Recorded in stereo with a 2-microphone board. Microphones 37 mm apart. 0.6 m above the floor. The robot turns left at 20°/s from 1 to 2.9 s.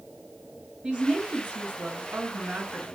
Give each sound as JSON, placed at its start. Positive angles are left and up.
{"t": 0.8, "sound": "a woman speaking", "azimuth_deg": -25, "distance_m": 3.5}